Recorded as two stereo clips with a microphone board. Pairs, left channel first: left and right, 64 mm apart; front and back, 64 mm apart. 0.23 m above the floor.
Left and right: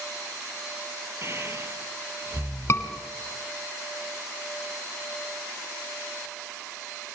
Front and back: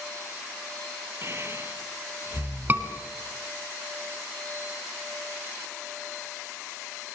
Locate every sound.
1.2 s breathing: 135° right, 1.6 m
2.7 s a scream: 125° left, 1.9 m